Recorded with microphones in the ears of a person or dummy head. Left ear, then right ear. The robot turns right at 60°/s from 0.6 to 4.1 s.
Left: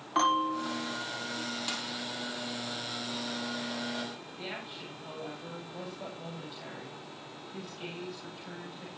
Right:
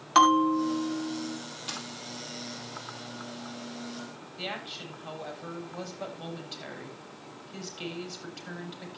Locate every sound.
0.1 s a bell: 65° right, 3.5 m; by 1.4 s 15° right, 3.5 m
1.7 s a dropped coin: 20° left (ahead or behind), 2.5 m; by 1.9 s 30° left (ahead or behind), 2.5 m
4.4 s a woman speaking: 40° right (ahead or behind), 5.5 m